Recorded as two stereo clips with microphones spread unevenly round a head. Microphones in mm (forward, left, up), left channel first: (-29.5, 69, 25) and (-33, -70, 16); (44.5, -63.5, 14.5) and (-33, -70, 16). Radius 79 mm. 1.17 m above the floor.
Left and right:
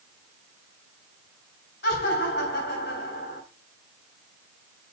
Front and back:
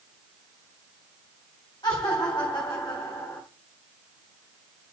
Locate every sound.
1.8 s laughter: 65° left, 3.5 m